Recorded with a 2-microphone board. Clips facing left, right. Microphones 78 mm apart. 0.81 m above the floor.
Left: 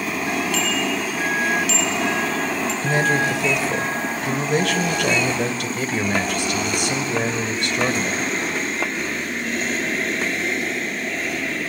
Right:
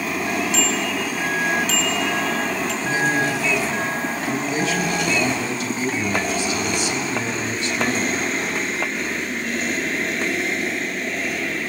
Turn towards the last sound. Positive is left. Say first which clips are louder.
# left 2 dB
turn(degrees=65)  # may be behind; listen again after turning